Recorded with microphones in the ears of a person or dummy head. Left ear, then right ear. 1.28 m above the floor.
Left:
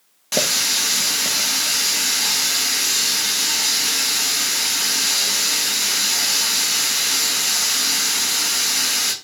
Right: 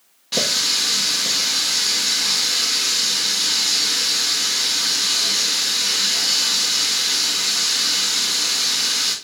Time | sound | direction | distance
0.3 | a running tap | 35° left (ahead or behind) | 0.7 m